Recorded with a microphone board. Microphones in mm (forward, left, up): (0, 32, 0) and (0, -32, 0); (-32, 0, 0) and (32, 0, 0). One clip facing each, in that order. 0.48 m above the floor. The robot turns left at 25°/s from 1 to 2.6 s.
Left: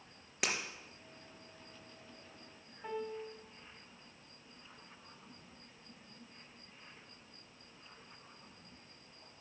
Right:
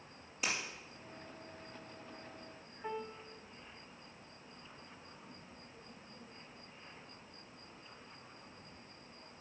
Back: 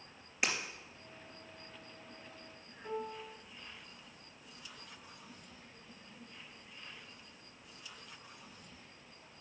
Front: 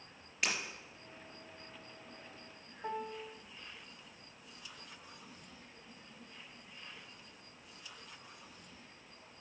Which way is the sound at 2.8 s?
5° right.